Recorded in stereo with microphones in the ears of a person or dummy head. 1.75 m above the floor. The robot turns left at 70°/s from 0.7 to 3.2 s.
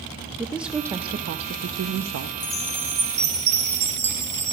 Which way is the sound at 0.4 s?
5° right.